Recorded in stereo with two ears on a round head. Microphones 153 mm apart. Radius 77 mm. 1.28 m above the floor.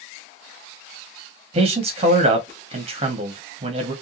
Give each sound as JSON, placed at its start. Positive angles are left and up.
{"t": 1.5, "sound": "a man speaking", "side_deg": -35, "distance_m": 0.9}